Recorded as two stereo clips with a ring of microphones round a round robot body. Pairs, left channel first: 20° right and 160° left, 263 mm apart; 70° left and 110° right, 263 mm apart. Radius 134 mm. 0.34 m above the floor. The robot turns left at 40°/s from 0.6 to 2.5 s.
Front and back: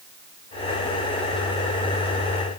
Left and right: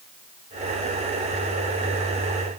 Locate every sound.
Only background noise.